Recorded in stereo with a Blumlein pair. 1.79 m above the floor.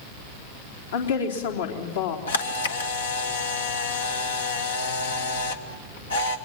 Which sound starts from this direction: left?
A camera shutter, at 2.3 s.